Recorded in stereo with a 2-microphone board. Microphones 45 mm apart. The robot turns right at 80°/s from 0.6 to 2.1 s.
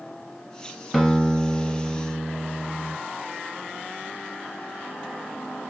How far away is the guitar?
About 1.3 m.